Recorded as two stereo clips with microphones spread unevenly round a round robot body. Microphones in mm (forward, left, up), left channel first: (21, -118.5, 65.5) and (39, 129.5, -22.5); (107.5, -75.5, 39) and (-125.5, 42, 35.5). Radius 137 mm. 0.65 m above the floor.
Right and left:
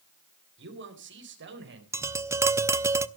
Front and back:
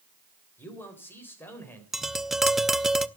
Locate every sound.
0.6 s a man speaking: 55° left, 3.5 m
1.9 s tapping: 65° left, 0.6 m